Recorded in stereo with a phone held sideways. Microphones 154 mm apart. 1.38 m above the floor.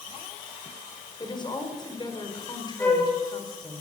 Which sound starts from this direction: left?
A woman speaking, at 1.2 s.